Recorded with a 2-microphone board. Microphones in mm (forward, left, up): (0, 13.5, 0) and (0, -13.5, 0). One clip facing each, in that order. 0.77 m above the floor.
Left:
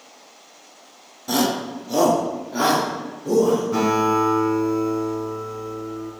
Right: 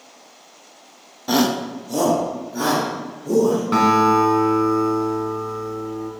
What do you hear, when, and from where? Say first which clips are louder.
1.3 s a shout: right 2 dB; 25° right (ahead or behind), 0.7 m; by 3.6 s 40° left (ahead or behind), 3 m
3.7 s a guitar: right 4 dB; 60° right (ahead or behind), 2 m